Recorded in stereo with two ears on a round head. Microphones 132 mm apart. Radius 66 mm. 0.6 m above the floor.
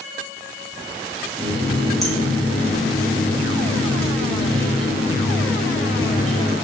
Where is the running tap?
Centre (ahead or behind), 5 m.